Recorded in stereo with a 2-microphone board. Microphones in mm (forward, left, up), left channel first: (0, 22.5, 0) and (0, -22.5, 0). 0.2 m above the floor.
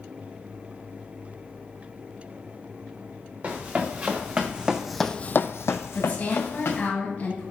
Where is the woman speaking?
40° left (ahead or behind), 3.5 m.